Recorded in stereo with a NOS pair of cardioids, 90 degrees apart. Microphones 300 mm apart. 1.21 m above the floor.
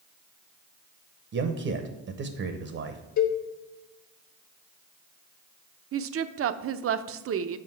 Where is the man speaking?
50° right, 0.9 m.